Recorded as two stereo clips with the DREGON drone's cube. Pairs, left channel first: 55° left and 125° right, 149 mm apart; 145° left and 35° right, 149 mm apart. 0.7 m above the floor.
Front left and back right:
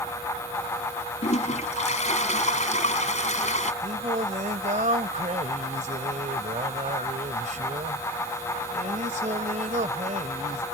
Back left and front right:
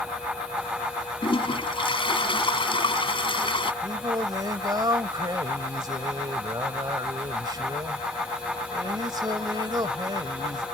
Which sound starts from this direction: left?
A toilet flushing, at 1.2 s.